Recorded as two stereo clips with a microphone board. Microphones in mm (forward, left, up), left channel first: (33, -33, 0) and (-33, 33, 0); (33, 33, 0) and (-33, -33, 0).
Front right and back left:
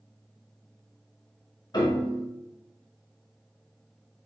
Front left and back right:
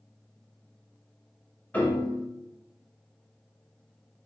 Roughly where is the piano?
Ahead right.